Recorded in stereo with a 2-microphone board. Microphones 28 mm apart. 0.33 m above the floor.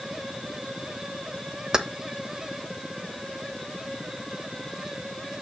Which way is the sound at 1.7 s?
25° right (ahead or behind).